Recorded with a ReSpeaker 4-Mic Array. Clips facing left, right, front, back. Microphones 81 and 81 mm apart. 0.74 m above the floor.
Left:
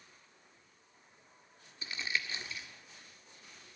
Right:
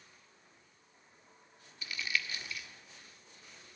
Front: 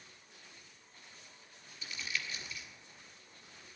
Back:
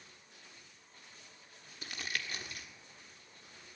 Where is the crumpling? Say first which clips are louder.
Even, back 1 dB; 150° left, 1.5 m.